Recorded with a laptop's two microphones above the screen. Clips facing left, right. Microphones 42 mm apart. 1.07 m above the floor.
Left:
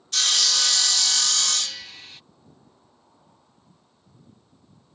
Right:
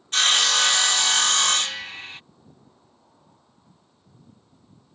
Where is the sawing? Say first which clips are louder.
Right 5 dB; 40° right (ahead or behind).